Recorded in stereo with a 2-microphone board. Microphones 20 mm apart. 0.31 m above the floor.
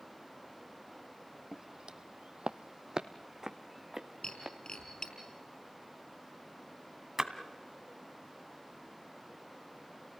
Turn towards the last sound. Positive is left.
turn(degrees=-25)  # may be behind; listen again after turning